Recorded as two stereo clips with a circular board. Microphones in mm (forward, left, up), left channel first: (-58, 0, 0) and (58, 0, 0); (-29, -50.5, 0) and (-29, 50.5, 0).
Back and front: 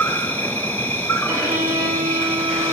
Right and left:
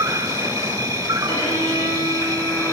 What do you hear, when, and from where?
0.0 s an insect: 120° left, 2.0 m
1.3 s a violin: 50° right, 3.5 m